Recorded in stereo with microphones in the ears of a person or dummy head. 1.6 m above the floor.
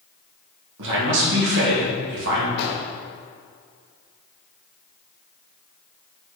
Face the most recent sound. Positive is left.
turn(degrees=55)  # may be behind; listen again after turning